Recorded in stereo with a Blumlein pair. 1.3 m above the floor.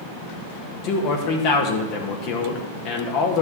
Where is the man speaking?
40° left, 1.9 m.